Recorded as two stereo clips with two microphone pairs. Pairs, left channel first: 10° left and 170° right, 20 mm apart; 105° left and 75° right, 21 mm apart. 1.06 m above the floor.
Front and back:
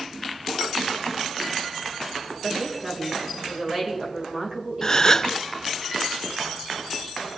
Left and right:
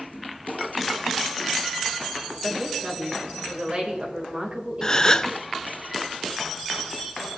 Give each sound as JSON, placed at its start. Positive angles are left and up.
{"t": 2.4, "sound": "a woman speaking", "azimuth_deg": -105, "distance_m": 4.0}
{"t": 4.8, "sound": "a gasp", "azimuth_deg": 65, "distance_m": 0.5}